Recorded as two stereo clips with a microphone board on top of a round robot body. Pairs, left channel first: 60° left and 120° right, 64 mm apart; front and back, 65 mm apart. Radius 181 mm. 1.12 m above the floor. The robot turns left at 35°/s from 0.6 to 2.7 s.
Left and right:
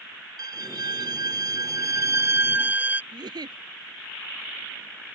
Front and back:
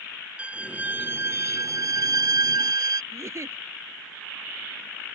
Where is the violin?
110° right; by 3.0 s straight behind.